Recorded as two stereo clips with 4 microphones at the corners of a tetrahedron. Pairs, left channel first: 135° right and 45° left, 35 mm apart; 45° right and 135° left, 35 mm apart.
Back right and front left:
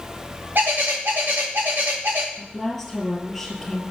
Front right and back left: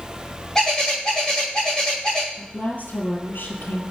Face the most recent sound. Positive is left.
turn(degrees=-45)